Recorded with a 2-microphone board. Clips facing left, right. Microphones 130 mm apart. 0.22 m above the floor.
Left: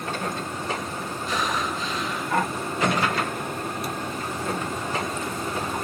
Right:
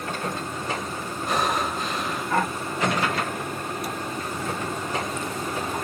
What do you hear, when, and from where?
1.3 s breathing: 60° right (ahead or behind), 3 m